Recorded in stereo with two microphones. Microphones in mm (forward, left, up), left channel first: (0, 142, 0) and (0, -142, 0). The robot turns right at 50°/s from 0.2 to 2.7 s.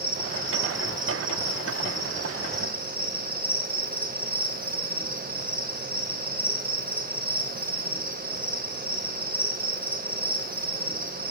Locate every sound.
0.0 s an insect: 60° left, 3 m; by 11.3 s 175° right, 3 m